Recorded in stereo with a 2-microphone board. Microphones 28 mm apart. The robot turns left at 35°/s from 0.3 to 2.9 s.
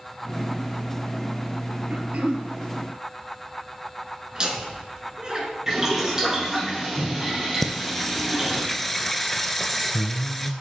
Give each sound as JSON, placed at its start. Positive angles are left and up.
{"t": 1.9, "sound": "throat clearing", "side_deg": -55, "distance_m": 1.0}
{"t": 4.3, "sound": "laughter", "side_deg": -35, "distance_m": 1.7}
{"t": 5.7, "sound": "boiling", "side_deg": -20, "distance_m": 3.5}
{"t": 7.6, "sound": "singing", "side_deg": 5, "distance_m": 0.6}